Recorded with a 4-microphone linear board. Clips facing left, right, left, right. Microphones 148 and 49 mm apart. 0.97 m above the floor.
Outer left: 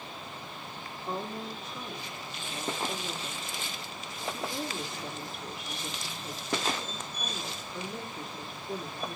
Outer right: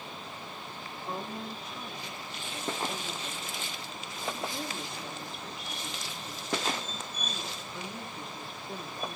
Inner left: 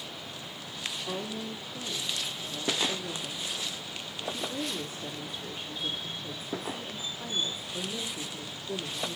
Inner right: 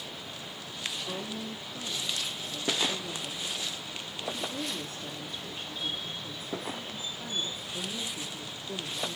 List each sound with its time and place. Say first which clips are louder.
1.1 s a woman speaking: outer left 2 dB, inner left 1 dB; 5° left (ahead or behind), 1.7 m